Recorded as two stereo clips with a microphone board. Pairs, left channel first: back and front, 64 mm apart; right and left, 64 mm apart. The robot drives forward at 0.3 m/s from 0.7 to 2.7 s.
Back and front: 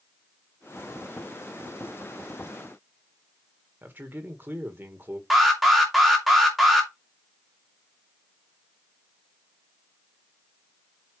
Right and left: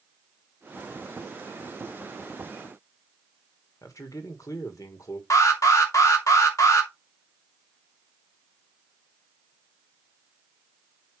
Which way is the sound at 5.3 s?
90° right.